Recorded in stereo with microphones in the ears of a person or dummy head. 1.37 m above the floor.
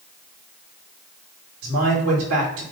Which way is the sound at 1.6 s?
90° right.